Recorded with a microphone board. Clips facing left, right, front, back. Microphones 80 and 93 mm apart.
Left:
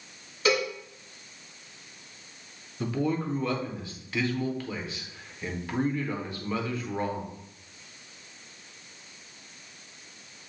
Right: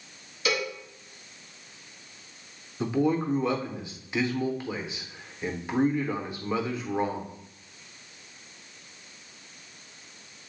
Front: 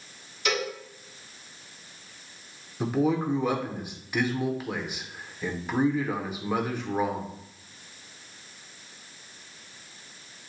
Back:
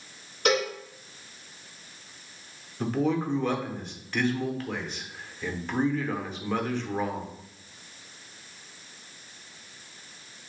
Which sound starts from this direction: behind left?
A cowbell, at 0.5 s.